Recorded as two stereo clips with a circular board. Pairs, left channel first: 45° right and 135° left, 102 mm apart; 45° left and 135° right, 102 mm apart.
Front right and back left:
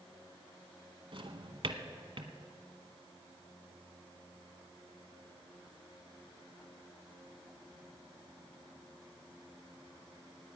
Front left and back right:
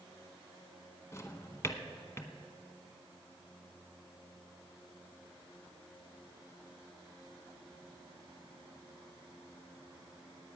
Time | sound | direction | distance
1.1 | a drawer | 105° left | 0.9 m